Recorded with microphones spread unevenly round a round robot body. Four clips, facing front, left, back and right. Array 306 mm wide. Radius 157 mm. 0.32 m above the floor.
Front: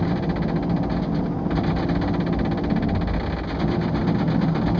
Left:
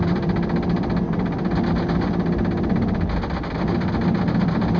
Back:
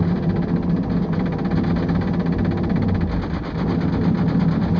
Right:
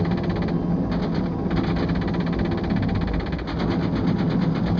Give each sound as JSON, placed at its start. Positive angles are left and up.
{"t": 0.0, "sound": "an engine running", "azimuth_deg": 170, "distance_m": 7.0}